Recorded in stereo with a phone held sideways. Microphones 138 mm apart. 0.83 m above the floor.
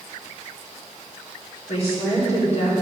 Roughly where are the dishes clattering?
No dishes clattering in this recording.